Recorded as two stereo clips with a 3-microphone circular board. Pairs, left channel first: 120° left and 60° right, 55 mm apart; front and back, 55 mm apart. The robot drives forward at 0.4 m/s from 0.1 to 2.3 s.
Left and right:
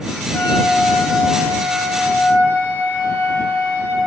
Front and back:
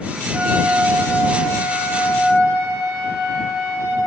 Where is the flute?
135° left, 0.9 m; by 4.0 s 160° left, 1.4 m.